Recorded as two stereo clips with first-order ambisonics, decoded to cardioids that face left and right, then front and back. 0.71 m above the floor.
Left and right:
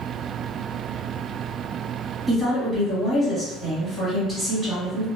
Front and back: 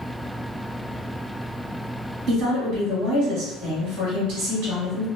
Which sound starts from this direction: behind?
A woman speaking, at 2.3 s.